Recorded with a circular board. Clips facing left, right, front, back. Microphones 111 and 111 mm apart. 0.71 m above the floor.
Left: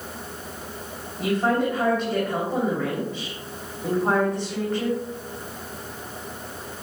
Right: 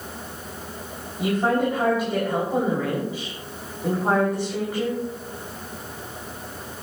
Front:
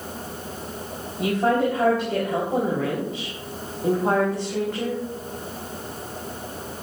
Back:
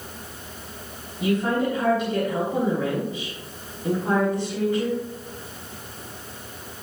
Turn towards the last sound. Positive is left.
turn(degrees=-5)